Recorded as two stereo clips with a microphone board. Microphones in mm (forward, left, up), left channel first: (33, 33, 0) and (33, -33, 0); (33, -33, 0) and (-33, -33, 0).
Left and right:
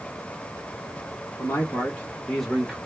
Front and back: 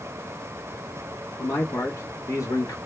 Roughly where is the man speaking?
Ahead left.